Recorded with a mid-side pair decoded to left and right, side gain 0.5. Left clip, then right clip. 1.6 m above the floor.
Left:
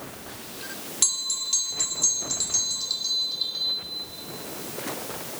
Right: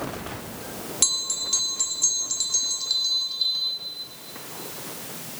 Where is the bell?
10° right, 4 m.